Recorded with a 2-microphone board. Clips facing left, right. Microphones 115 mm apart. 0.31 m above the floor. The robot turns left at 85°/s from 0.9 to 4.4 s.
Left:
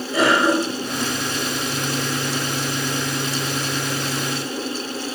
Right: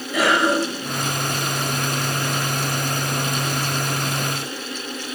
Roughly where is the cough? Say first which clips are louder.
Left 1 dB; left.